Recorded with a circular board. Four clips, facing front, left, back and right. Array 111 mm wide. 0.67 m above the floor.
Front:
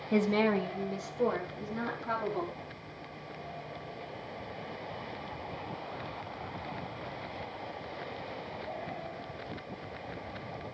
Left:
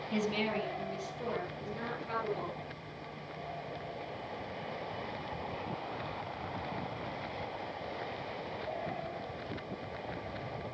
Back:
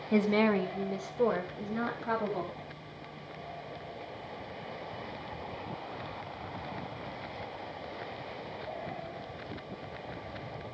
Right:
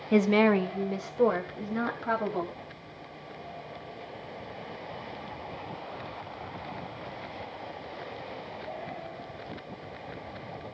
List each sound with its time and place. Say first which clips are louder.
0.1 s a woman speaking: right 12 dB, back 1 dB; 95° right, 1.0 m; by 2.6 s 110° right, 4.5 m